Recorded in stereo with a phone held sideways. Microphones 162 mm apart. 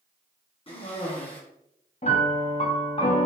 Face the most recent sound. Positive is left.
turn(degrees=40)  # may be behind; listen again after turning